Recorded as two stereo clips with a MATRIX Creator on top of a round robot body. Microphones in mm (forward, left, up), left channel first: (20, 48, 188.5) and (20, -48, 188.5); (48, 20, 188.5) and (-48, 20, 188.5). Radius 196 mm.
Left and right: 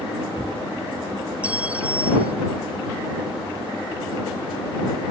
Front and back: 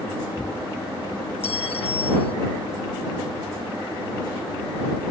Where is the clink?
10° right.